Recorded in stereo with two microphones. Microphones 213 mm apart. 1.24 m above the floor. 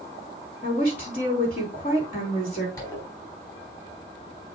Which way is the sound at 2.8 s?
15° left (ahead or behind).